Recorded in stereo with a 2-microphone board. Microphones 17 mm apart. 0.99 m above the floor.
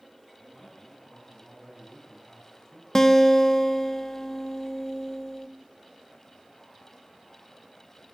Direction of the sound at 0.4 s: 40° left (ahead or behind).